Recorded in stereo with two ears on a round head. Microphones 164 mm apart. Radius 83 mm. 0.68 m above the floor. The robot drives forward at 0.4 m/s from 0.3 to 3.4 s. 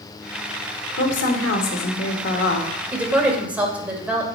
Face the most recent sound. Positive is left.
turn(degrees=-10)  # may be behind; listen again after turning